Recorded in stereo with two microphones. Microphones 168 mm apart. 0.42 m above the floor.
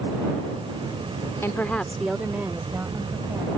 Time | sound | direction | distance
1.4 | a woman speaking | 15° left (ahead or behind) | ?